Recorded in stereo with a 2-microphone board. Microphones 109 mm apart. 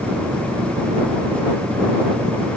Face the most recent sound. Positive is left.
turn(degrees=-55)  # may be behind; listen again after turning